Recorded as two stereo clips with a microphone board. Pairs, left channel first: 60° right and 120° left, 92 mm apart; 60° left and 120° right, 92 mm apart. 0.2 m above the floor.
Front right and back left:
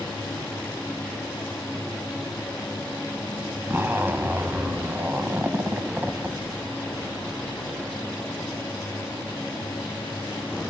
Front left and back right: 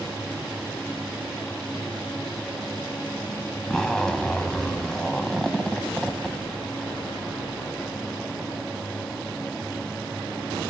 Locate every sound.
3.7 s a zipper: 130° left, 0.7 m